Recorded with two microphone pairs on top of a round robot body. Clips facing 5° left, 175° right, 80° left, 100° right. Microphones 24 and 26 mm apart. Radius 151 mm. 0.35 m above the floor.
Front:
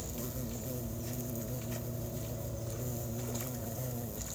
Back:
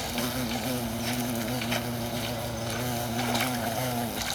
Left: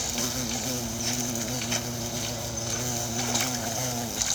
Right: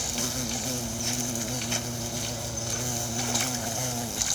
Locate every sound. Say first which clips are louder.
0.0 s an insect: back 11 dB, left 1 dB; 165° left